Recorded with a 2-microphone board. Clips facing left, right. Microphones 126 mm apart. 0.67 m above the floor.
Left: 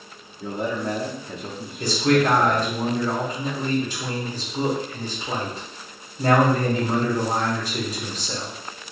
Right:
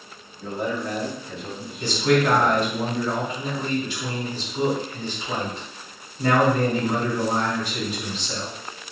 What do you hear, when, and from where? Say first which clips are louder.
0.4 s a man speaking: left 1 dB; 15° left (ahead or behind), 1.0 m; by 2.8 s 70° left (ahead or behind), 1.8 m
1.8 s a man speaking: left 1 dB; 40° left (ahead or behind), 1.4 m